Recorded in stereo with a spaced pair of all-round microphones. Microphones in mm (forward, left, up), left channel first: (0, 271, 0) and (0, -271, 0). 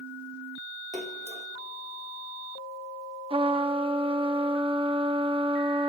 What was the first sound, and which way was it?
A splash, 15° right (ahead or behind).